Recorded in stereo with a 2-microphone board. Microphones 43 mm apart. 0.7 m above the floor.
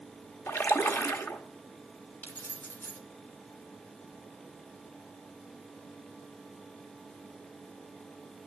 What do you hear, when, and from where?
0.5 s a splash: 65° left (ahead or behind), 1.0 m
2.2 s keys jangling: 45° left (ahead or behind), 1.6 m